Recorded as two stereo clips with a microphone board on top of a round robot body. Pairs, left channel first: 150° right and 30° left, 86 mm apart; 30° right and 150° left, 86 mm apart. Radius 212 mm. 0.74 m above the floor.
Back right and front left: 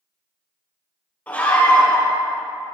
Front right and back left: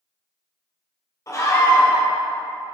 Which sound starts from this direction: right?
A scream, at 1.3 s.